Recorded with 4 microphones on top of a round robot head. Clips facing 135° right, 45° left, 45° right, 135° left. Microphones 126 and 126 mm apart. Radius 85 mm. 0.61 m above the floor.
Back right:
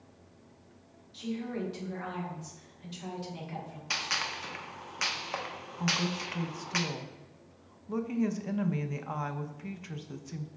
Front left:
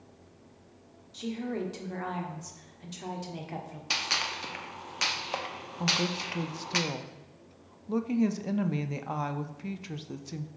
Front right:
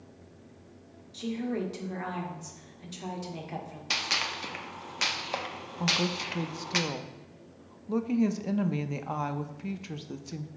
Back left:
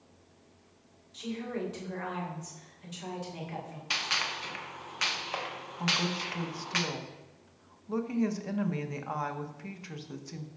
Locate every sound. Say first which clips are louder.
1.1 s a woman speaking: front left 2 dB, front right 4 dB; 10° left, 1.6 m
3.9 s a gunshot: front left 2 dB, front right 1 dB; 10° right, 0.9 m
5.8 s a woman speaking: front left 1 dB, front right 2 dB; 5° left, 0.6 m